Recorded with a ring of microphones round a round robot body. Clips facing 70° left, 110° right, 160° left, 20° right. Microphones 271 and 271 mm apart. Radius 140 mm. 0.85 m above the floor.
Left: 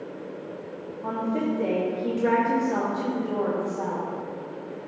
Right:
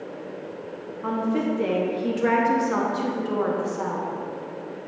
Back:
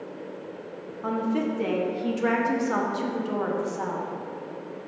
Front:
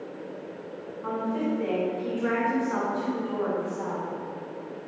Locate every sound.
1.0 s a woman speaking: straight behind, 0.9 m